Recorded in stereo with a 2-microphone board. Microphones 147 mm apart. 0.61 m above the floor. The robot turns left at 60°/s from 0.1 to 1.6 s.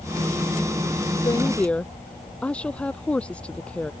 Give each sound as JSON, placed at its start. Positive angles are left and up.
{"t": 1.2, "sound": "a woman speaking", "side_deg": 30}